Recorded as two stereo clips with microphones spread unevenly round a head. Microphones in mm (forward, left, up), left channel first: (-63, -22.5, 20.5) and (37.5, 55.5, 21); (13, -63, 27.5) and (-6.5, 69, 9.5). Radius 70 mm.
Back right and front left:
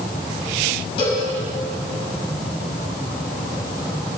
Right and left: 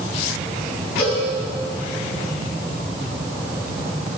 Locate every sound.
1.0 s a cowbell: 90° right, 7 m